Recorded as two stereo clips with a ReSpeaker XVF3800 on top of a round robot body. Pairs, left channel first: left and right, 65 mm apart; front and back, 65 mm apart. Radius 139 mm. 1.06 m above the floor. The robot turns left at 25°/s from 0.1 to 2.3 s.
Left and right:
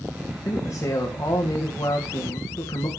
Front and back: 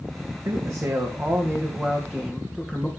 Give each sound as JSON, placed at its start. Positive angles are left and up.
{"t": 0.5, "sound": "a man speaking", "azimuth_deg": 140, "distance_m": 2.0}